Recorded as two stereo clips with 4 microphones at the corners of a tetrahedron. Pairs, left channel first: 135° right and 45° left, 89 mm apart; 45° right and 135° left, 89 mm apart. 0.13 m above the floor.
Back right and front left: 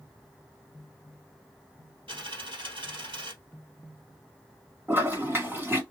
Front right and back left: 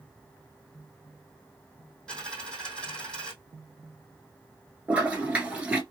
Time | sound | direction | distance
2.1 | a dropped coin | 35° left | 2 m
4.9 | a toilet flushing | 75° left | 1.3 m